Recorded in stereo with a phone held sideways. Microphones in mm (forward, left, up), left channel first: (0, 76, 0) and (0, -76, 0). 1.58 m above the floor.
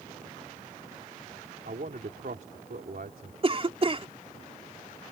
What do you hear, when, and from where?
1.6 s a man speaking: 80° right
3.4 s a cough: 40° right (ahead or behind)